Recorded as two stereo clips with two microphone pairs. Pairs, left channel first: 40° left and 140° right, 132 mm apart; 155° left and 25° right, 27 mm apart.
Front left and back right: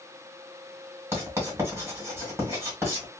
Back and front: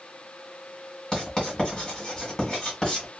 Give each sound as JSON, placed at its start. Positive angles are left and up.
{"t": 1.1, "sound": "writing", "azimuth_deg": 180, "distance_m": 1.7}